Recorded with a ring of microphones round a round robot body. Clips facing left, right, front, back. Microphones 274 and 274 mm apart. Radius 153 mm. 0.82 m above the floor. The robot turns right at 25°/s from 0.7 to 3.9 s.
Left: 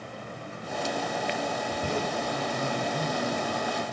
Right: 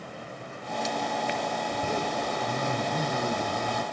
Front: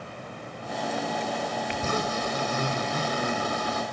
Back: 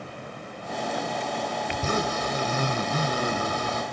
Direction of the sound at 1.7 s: 170° right.